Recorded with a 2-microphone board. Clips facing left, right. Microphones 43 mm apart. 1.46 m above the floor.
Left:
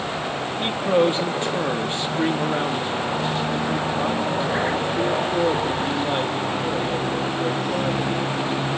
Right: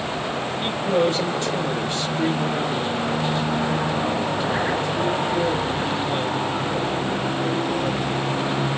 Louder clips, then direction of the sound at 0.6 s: Left 2 dB; 25° left (ahead or behind).